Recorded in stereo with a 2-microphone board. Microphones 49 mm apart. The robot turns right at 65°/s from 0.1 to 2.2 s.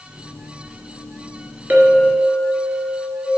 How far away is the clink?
About 1.2 m.